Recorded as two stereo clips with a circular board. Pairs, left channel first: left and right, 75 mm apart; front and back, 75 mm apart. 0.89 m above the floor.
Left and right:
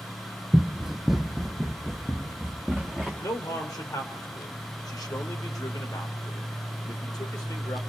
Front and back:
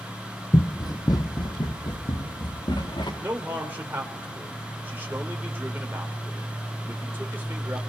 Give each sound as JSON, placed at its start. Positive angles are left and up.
{"t": 0.5, "sound": "running footsteps", "azimuth_deg": -15, "distance_m": 1.3}
{"t": 3.2, "sound": "a man speaking", "azimuth_deg": 120, "distance_m": 2.5}